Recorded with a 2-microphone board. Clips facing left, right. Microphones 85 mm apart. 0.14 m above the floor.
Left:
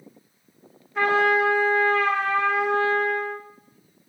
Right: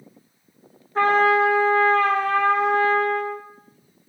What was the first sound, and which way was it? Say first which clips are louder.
A trumpet: right 3 dB; 35° right (ahead or behind).